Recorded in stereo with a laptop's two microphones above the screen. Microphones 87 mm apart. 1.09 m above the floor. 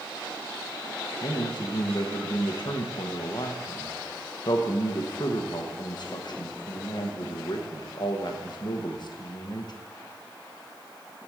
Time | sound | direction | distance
1.2 | a man speaking | 55° left (ahead or behind) | 1.1 m